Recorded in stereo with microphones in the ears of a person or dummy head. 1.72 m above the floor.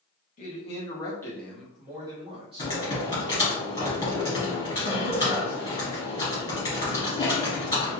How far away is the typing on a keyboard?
About 1.7 m.